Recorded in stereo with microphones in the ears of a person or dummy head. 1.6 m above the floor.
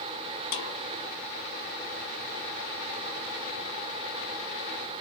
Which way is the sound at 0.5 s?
45° left (ahead or behind).